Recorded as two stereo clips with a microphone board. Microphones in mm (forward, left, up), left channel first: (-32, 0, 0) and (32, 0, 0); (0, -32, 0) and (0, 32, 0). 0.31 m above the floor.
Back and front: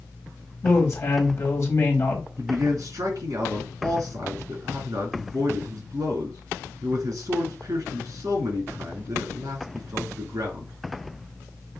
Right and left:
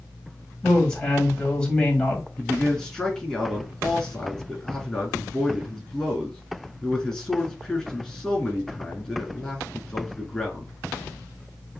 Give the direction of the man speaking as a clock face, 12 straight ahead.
1 o'clock.